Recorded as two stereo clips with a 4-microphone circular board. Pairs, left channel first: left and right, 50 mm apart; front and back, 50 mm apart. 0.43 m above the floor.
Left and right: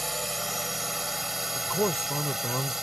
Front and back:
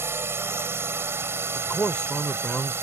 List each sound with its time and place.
0.0 s a drone: straight behind; by 2.9 s 175° right
1.6 s a man speaking: 50° left